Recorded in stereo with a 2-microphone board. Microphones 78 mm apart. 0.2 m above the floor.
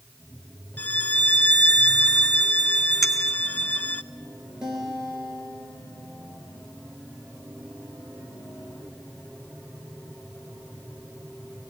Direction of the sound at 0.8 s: 25° left (ahead or behind).